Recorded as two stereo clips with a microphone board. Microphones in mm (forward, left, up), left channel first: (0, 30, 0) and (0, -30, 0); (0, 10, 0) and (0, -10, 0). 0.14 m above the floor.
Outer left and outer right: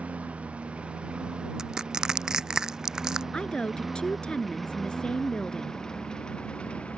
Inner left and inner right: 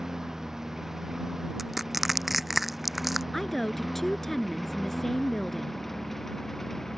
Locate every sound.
0.0 s a lawn mower: 20° right (ahead or behind); by 7.0 s 20° left (ahead or behind)
1.6 s crushing: 10° right (ahead or behind)
3.3 s a woman speaking: 15° left (ahead or behind)